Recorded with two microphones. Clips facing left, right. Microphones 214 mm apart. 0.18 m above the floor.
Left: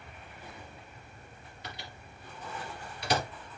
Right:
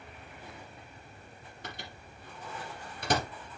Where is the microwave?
50° right (ahead or behind), 2.5 m.